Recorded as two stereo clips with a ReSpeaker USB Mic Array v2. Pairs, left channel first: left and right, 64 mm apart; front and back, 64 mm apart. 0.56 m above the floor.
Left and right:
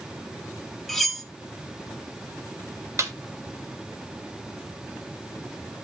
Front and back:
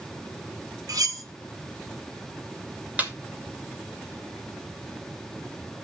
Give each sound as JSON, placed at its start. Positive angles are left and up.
{"t": 0.9, "sound": "cutlery clinking", "azimuth_deg": 180, "distance_m": 1.5}
{"t": 3.0, "sound": "a snare drum", "azimuth_deg": -115, "distance_m": 2.0}